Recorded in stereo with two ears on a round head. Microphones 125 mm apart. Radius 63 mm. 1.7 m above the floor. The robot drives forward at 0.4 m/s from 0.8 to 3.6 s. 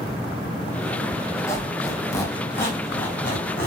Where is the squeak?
20° left (ahead or behind), 0.6 m; by 3.7 s 15° left (ahead or behind), 1.0 m.